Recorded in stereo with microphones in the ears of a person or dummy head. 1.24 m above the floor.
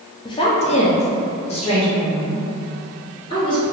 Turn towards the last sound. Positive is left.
turn(degrees=20)  # may be behind; listen again after turning